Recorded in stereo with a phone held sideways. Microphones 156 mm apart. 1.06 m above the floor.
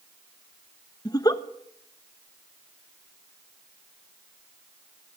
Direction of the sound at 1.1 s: 25° left (ahead or behind).